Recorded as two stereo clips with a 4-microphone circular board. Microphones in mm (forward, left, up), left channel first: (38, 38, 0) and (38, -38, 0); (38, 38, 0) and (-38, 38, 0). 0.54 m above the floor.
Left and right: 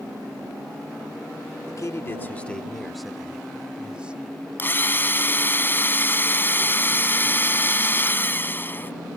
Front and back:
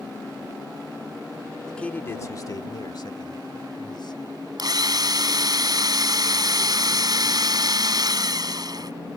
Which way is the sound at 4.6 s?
150° left.